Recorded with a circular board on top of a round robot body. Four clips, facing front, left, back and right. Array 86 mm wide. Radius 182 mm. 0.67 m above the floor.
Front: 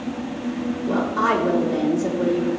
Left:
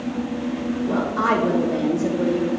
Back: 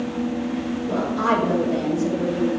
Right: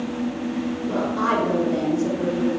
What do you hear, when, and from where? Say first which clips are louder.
0.9 s a woman speaking: left 2 dB, front 1 dB; 20° left, 3.5 m